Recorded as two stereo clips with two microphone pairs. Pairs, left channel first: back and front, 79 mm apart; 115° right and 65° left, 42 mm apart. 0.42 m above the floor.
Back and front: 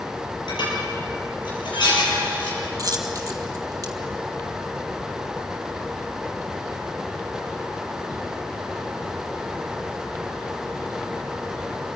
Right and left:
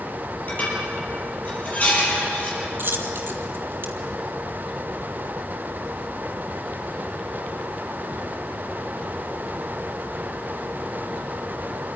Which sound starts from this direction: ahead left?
A dropped coin, at 2.8 s.